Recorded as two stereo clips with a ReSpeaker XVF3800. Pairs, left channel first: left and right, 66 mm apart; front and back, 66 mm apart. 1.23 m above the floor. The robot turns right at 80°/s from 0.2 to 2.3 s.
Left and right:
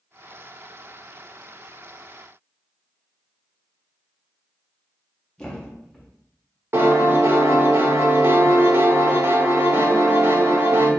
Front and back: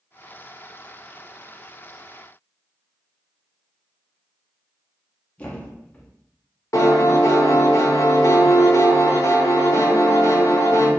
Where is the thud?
25° left, 0.5 m.